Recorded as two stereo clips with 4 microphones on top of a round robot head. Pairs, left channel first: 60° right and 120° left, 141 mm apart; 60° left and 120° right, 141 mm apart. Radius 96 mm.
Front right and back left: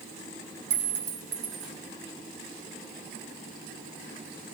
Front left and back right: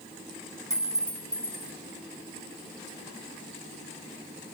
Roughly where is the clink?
Behind.